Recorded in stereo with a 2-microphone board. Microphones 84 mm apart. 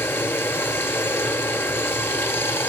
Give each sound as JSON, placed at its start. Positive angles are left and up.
{"t": 0.0, "sound": "running water", "side_deg": 25, "distance_m": 0.8}